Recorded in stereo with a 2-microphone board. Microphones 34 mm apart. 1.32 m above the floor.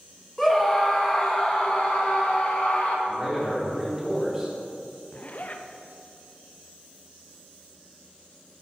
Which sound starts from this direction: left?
A zipper, at 5.1 s.